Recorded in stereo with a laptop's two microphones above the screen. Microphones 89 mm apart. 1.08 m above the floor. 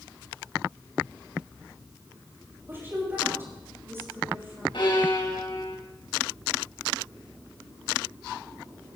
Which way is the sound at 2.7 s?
30° right (ahead or behind).